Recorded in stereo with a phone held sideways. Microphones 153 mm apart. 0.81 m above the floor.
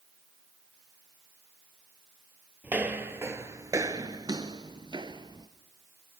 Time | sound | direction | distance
2.6 | footsteps | 10° right (ahead or behind) | 1.2 m